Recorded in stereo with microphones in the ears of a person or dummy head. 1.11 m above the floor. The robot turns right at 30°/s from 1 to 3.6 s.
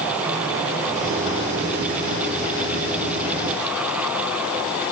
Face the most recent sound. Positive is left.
No sound to turn to.